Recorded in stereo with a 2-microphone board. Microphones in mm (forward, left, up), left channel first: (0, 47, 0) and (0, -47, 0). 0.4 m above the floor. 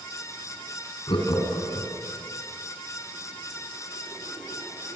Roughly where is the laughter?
Left.